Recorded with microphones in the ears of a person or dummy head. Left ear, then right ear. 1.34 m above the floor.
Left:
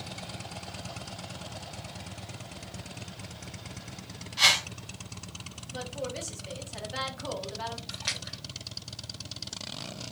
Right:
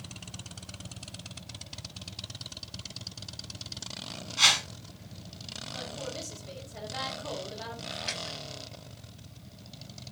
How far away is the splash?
About 1.9 m.